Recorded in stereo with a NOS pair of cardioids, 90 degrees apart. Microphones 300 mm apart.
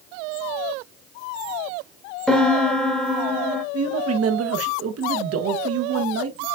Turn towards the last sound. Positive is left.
turn(degrees=-50)